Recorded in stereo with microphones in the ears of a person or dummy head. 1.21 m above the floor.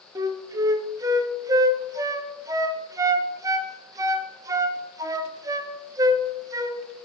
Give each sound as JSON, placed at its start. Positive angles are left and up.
{"t": 0.1, "sound": "a flute", "side_deg": -15, "distance_m": 0.6}